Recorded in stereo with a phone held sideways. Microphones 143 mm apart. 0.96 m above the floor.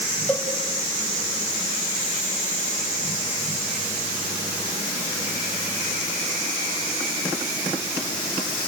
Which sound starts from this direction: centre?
A cowbell, at 0.3 s.